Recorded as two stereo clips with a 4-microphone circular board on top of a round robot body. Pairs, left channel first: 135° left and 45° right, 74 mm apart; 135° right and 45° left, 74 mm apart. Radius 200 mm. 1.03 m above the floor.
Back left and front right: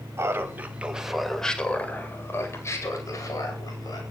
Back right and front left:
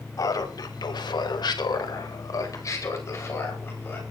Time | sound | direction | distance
0.2 | laughter | 100° right | 3 m